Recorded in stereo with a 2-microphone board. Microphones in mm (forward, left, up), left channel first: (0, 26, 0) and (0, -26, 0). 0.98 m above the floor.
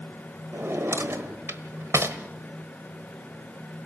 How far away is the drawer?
About 1.1 m.